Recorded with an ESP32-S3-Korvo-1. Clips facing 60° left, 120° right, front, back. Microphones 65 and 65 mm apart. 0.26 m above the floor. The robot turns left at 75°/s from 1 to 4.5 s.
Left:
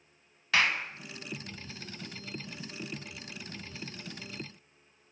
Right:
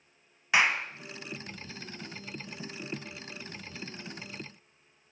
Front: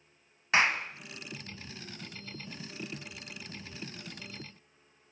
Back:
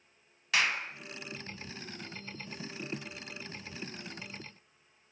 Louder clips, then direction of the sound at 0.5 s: Right 2 dB, front 4 dB; 50° right.